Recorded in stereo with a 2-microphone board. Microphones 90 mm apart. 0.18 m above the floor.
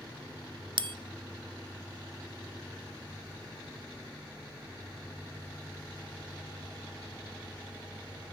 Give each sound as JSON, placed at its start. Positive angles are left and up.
{"t": 0.8, "sound": "a bell", "side_deg": -65, "distance_m": 0.6}